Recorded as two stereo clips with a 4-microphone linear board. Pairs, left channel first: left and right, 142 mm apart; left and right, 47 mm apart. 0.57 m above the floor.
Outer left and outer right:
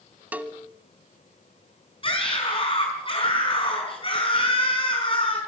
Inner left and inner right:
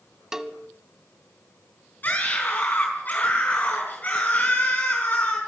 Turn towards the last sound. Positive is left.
turn(degrees=40)  # may be behind; listen again after turning